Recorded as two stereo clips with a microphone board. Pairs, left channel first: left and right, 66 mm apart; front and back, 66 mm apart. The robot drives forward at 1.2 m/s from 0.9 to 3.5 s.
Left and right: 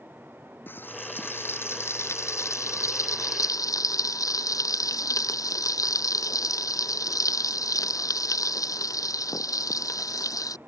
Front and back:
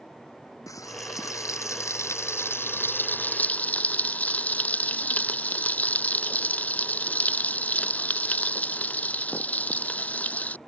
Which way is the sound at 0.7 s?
35° left.